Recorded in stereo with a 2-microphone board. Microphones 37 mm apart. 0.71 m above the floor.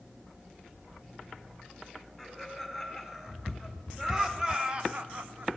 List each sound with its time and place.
2.2 s laughter: 5° right (ahead or behind), 4 m; by 5.5 s 45° right (ahead or behind), 0.8 m